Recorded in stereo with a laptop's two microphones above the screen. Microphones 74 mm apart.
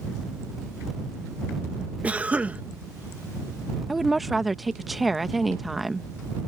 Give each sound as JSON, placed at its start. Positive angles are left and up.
{"t": 2.0, "sound": "a cough", "side_deg": -20}
{"t": 3.9, "sound": "a woman speaking", "side_deg": 0}